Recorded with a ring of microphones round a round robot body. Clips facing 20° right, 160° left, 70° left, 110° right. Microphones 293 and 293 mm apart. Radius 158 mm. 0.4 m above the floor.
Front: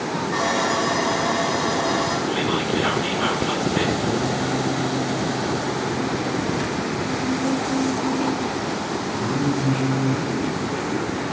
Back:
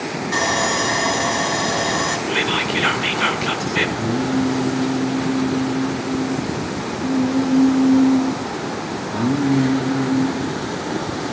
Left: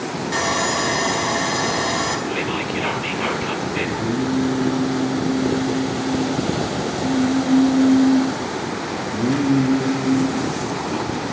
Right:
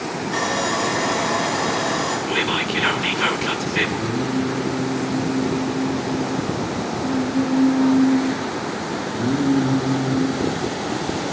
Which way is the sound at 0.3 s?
120° left.